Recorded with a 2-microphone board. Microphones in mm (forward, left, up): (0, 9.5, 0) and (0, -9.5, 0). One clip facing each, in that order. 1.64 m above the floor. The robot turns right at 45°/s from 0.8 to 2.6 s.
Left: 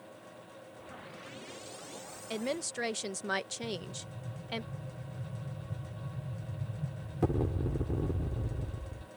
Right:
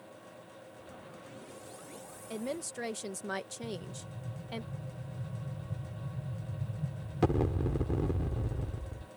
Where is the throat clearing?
I don't hear throat clearing.